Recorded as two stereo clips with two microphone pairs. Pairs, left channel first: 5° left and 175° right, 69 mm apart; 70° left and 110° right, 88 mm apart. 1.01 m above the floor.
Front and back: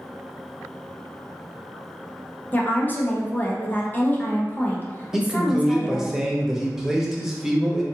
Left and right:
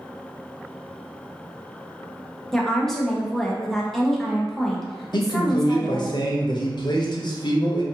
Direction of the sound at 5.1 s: 105° left.